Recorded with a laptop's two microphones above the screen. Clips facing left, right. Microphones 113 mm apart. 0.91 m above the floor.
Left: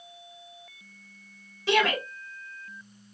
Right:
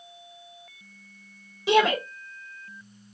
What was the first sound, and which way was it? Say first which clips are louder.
A shout: right 4 dB; 15° right (ahead or behind).